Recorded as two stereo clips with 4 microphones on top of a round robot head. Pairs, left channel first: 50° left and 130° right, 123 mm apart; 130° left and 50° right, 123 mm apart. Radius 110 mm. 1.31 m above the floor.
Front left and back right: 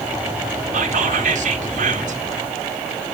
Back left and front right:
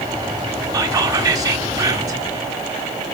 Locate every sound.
0.7 s whispering: 110° right, 1.5 m